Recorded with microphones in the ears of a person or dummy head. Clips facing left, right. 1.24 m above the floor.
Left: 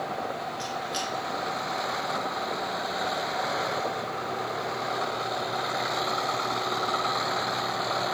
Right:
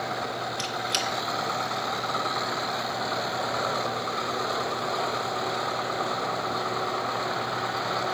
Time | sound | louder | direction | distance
0.6 | a squeak | right 1 dB | 30° right (ahead or behind) | 0.6 m